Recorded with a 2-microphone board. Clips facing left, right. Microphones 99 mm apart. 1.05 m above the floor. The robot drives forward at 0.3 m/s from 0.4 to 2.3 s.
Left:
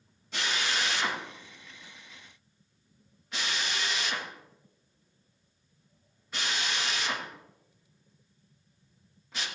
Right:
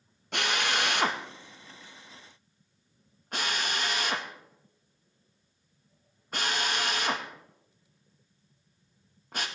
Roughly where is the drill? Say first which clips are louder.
Right 3 dB; right.